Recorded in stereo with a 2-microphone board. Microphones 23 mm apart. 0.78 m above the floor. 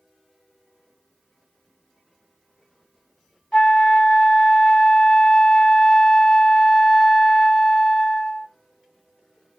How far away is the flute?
About 1.1 m.